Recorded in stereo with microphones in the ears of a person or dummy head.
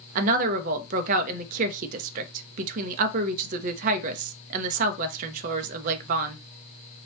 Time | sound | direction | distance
0.1 | a woman speaking | 45° right (ahead or behind) | 0.5 m